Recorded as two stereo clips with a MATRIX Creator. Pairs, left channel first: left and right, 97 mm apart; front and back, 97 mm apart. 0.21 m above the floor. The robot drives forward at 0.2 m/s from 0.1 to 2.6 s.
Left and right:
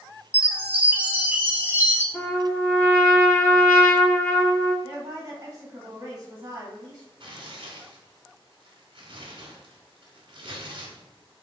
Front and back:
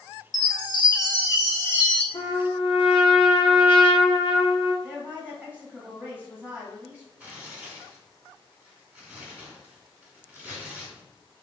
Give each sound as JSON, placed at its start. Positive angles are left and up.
{"t": 0.3, "sound": "a chime", "azimuth_deg": -20, "distance_m": 0.8}
{"t": 2.1, "sound": "a trumpet", "azimuth_deg": 20, "distance_m": 0.9}
{"t": 4.8, "sound": "a woman speaking", "azimuth_deg": -115, "distance_m": 1.5}
{"t": 7.2, "sound": "tearing paper", "azimuth_deg": -105, "distance_m": 0.9}